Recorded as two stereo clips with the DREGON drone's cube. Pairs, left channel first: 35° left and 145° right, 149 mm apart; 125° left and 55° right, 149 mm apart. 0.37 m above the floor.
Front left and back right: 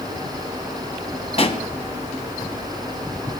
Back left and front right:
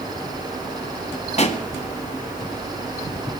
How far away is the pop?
About 1.4 m.